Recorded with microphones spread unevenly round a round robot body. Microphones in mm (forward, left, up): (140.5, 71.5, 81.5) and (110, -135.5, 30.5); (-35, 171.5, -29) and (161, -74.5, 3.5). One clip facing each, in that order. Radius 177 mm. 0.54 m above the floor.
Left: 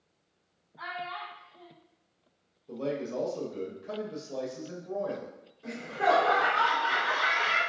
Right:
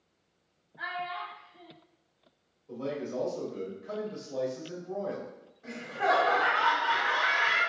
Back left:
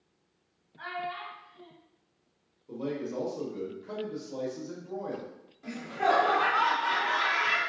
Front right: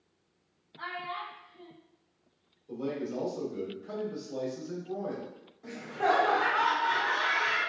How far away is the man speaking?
About 1.0 m.